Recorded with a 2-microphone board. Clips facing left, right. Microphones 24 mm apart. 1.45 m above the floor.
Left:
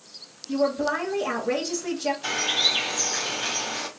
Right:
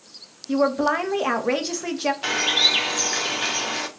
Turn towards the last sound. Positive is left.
turn(degrees=-70)  # may be behind; listen again after turning